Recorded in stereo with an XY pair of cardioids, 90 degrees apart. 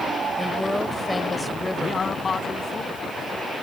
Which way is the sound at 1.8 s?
45° left.